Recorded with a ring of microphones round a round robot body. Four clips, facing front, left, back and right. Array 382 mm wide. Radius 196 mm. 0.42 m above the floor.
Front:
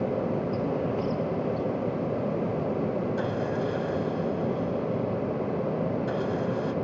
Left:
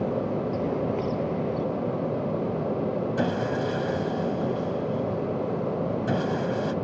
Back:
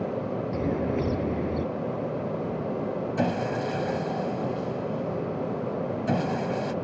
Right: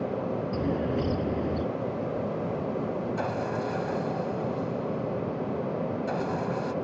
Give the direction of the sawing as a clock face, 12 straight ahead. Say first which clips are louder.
Left 4 dB, back 1 dB; 7 o'clock.